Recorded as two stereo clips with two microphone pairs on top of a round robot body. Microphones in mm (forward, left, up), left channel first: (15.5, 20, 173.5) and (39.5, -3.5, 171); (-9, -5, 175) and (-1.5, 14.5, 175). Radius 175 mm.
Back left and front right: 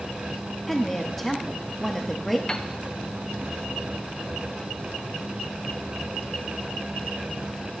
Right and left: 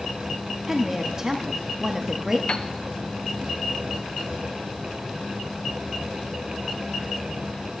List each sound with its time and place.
0.7 s a woman speaking: 45° left, 1.1 m
2.5 s a piano: 155° right, 0.7 m